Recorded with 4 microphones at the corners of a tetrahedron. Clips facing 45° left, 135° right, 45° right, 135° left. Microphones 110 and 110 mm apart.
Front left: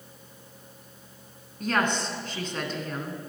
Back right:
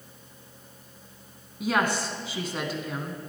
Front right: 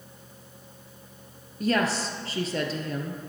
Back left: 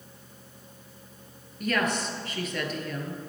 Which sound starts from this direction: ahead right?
A woman speaking, at 1.6 s.